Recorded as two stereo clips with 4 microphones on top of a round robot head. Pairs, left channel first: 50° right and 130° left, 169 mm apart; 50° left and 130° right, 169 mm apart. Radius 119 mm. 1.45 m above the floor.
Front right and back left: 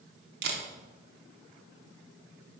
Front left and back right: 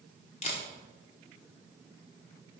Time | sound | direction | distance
0.4 | a camera shutter | 105° left | 1.1 m